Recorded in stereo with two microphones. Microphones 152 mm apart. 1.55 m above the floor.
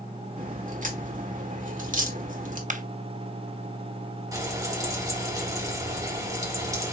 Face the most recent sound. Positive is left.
turn(degrees=-25)  # may be behind; listen again after turning